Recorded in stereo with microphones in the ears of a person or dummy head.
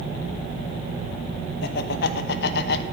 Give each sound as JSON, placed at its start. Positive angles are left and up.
{"t": 1.6, "sound": "laughter", "side_deg": 60, "distance_m": 1.1}